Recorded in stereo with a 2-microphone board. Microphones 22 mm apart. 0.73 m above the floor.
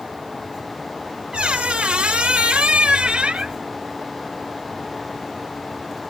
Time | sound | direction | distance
1.3 | a squeak | 50° right (ahead or behind) | 0.7 m